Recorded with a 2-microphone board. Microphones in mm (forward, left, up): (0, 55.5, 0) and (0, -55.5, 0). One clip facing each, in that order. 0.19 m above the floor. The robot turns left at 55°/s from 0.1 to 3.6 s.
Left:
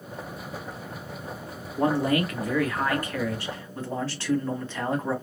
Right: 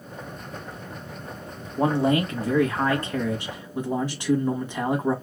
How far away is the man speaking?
About 1.5 m.